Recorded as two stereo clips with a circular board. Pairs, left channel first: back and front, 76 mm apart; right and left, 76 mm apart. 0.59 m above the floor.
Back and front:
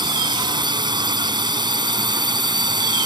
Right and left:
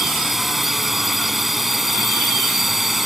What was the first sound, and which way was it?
A drone, 5° left.